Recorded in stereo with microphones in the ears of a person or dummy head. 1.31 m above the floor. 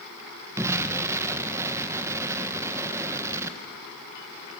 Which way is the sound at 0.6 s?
15° right (ahead or behind).